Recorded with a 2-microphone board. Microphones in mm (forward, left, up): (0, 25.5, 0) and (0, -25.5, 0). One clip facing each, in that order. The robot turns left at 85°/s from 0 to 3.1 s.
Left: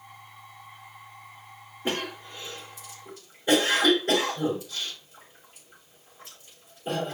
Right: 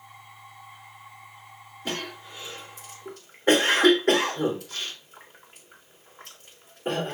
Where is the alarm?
I don't hear an alarm.